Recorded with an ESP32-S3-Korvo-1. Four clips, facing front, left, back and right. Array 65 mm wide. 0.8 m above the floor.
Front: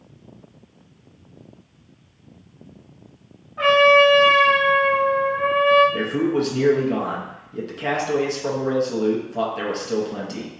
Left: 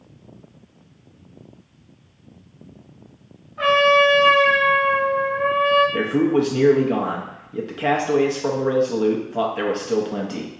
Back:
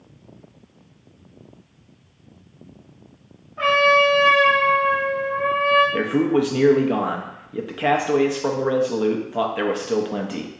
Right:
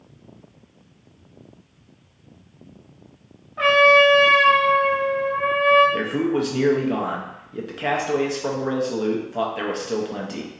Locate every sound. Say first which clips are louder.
3.6 s a trumpet: right 1 dB, front 3 dB; 80° right, 1.2 m
5.9 s a man speaking: left 3 dB, back 2 dB; 170° left, 0.5 m